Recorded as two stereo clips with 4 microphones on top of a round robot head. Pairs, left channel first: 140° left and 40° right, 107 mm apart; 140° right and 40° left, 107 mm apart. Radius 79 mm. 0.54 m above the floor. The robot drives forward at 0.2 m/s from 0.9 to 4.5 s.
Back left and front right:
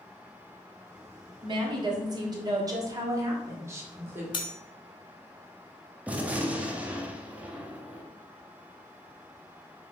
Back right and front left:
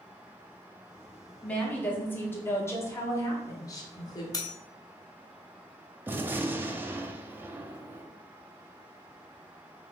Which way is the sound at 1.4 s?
65° right.